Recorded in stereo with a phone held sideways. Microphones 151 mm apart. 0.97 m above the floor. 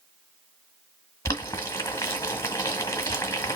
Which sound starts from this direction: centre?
Boiling, at 1.2 s.